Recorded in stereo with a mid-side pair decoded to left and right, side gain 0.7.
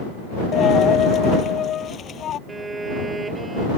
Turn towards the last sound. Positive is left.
turn(degrees=-15)